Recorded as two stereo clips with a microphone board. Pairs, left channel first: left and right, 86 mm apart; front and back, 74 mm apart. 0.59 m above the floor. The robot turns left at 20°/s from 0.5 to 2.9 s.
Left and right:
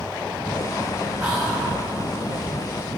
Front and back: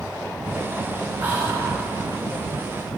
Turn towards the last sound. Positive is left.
turn(degrees=180)